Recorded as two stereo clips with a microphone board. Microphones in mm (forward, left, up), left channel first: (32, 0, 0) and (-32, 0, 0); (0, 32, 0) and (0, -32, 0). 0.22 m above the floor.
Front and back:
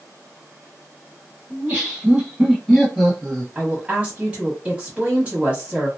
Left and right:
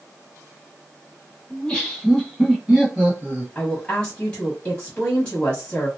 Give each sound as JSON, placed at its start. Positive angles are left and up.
{"t": 1.5, "sound": "laughter", "azimuth_deg": 140, "distance_m": 1.7}
{"t": 3.5, "sound": "a woman speaking", "azimuth_deg": 135, "distance_m": 1.4}